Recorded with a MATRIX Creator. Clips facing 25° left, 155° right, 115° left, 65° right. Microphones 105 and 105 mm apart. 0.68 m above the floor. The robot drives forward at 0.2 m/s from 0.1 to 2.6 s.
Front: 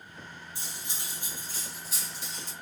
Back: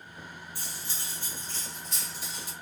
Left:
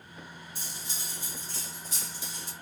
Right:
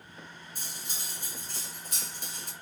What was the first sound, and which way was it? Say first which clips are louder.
Cutlery clinking: back 1 dB, even; 40° right.